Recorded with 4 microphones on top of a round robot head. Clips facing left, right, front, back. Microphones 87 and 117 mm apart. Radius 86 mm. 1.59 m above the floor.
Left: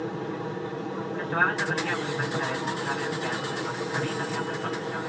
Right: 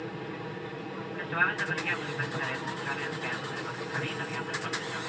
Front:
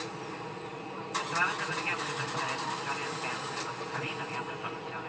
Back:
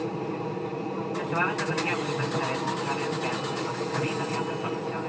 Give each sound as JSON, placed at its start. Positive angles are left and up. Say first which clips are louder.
{"t": 0.0, "sound": "an aircraft", "louder": "left 6 dB, back 9 dB", "azimuth_deg": 145}